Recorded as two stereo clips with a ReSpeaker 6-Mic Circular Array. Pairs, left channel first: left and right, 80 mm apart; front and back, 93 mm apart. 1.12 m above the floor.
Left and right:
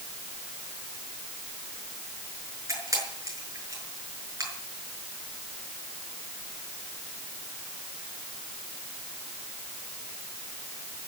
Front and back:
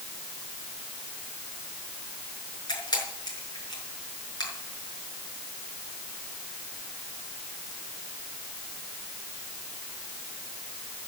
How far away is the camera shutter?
About 6.5 m.